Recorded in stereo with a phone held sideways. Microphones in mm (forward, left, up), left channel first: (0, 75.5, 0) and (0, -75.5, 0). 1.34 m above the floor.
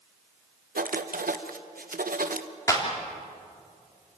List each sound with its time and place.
0.8 s writing: 85° right, 1.1 m
2.7 s a clap: 25° left (ahead or behind), 3 m